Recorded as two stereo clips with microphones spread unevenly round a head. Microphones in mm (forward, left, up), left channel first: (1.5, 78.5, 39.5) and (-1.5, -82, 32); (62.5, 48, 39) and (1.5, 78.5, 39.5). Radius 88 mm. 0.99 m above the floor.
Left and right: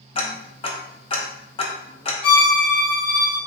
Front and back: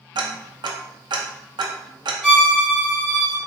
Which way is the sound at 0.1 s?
150° left.